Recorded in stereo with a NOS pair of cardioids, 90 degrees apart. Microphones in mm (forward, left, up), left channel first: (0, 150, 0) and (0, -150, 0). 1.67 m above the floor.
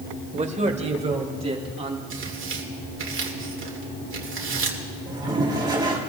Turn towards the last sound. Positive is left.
turn(degrees=-15)